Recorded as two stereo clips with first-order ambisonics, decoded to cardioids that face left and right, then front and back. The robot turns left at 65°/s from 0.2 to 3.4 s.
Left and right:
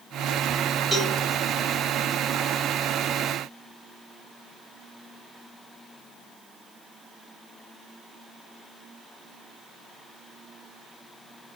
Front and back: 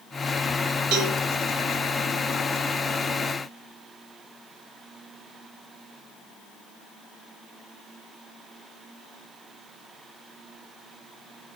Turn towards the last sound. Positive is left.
turn(degrees=25)